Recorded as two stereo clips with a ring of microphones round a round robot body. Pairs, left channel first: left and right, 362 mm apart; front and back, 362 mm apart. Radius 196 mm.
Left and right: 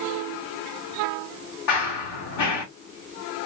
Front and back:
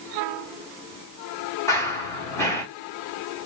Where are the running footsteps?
85° left, 2.5 m.